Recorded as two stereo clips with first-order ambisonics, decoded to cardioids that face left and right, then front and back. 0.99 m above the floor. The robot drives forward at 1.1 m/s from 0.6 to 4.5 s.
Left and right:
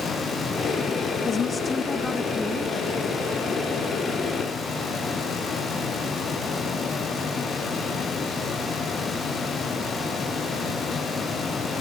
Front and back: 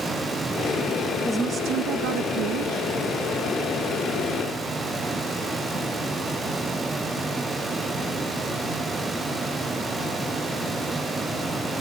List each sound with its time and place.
1.2 s a woman speaking: 75° left, 0.5 m; by 2.8 s 175° left, 1.8 m